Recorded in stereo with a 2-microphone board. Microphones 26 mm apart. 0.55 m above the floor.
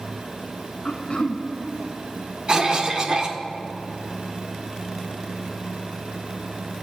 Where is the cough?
35° right (ahead or behind), 1.3 m.